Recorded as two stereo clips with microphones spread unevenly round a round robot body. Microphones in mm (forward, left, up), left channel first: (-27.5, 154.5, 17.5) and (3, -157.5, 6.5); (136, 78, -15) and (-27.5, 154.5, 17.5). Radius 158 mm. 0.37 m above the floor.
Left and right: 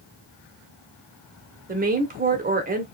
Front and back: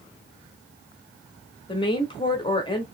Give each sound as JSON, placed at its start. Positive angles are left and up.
{"t": 1.7, "sound": "a woman speaking", "azimuth_deg": -45, "distance_m": 1.0}